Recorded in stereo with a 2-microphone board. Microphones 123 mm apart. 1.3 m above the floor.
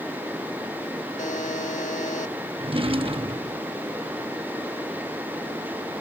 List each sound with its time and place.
1.2 s a buzzer: 65° left (ahead or behind)
2.6 s a drawer: 45° right (ahead or behind)